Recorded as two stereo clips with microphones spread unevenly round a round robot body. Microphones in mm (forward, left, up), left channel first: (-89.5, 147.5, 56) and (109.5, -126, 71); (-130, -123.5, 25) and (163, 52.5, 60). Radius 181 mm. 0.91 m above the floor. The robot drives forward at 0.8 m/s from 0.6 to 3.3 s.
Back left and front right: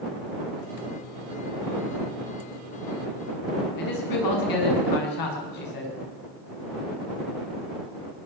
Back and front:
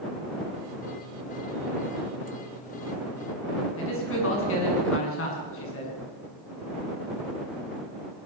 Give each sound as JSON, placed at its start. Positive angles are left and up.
{"t": 3.8, "sound": "a man speaking", "azimuth_deg": 155, "distance_m": 7.5}